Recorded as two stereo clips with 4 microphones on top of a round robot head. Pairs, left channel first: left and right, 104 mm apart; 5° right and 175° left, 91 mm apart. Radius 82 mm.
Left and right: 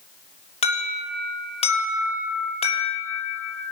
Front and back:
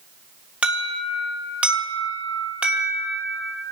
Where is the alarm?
100° left, 6 m.